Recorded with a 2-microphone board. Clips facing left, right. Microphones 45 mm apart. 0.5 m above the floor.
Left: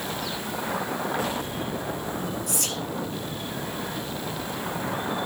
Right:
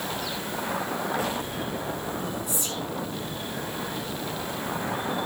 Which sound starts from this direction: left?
Whispering, at 2.5 s.